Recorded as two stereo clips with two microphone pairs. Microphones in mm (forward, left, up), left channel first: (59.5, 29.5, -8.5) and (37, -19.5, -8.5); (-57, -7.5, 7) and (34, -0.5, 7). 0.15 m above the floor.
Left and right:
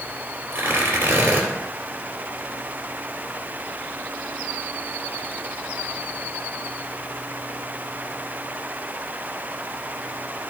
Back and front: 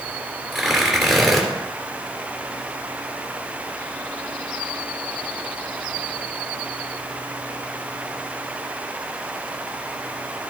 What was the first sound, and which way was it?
Tearing paper, 85° right.